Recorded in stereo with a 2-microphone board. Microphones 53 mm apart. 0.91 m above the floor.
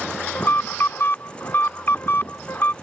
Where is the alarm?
45° left (ahead or behind).